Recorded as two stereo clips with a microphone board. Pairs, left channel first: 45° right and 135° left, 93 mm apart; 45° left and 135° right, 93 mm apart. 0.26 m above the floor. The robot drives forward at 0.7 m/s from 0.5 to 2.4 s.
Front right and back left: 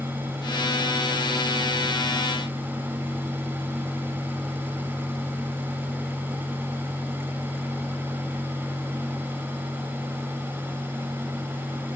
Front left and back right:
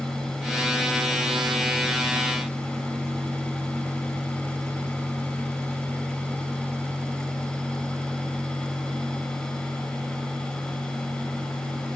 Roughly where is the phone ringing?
I don't hear a phone ringing.